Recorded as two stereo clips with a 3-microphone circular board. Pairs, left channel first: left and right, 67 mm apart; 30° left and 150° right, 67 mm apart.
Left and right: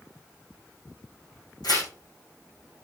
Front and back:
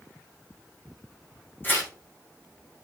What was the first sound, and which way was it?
Tearing paper, 90° left.